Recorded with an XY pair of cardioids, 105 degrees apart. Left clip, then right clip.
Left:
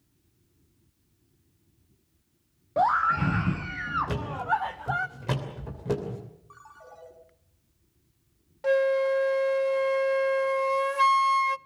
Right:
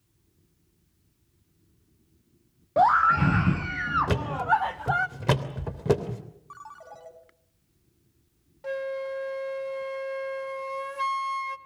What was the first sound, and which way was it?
A scream, 20° right.